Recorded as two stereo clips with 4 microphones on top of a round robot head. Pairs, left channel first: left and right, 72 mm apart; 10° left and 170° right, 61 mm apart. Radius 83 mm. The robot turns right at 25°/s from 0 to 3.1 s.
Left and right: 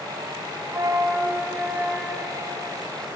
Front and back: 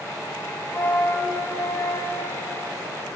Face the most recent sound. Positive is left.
turn(degrees=10)